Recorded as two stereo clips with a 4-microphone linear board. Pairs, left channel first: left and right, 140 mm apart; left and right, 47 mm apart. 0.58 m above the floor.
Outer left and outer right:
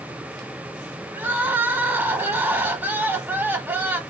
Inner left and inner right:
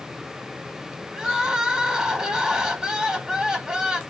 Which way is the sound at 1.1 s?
15° right (ahead or behind).